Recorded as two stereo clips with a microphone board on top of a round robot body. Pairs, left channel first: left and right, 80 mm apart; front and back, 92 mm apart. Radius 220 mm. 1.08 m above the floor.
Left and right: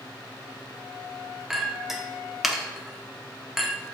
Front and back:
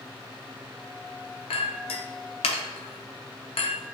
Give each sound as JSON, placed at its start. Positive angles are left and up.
{"t": 1.5, "sound": "a clink", "azimuth_deg": -5, "distance_m": 0.6}